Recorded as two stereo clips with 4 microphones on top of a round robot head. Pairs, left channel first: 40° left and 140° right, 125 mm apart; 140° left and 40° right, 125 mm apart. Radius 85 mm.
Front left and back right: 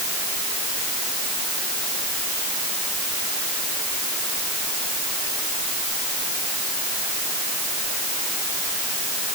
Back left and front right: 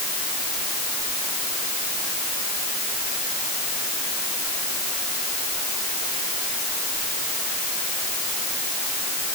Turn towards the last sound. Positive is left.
No sound to turn to.